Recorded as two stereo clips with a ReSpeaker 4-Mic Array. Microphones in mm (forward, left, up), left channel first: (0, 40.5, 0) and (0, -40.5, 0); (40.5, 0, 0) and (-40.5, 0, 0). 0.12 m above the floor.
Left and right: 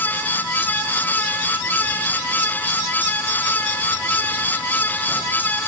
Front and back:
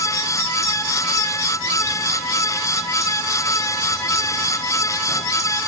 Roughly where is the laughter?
I don't hear laughter.